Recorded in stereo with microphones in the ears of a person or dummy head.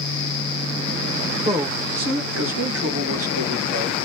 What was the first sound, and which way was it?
A man speaking, 30° right (ahead or behind).